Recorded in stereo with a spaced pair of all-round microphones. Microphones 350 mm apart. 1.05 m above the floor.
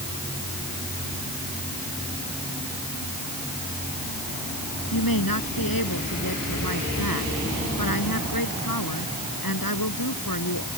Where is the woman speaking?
75° left (ahead or behind).